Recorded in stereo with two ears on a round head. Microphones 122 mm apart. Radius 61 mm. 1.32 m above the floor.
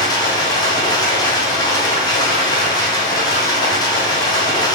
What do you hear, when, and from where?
0.0 s running water: 30° left (ahead or behind), 1.7 m